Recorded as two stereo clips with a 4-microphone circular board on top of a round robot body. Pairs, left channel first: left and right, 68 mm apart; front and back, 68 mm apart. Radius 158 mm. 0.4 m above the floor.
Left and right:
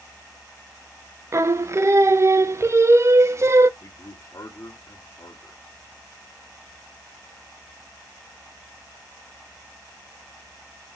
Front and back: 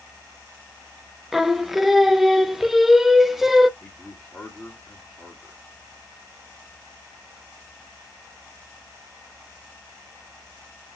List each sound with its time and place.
1.3 s singing: 95° right, 0.6 m
3.8 s a man speaking: 85° left, 1.6 m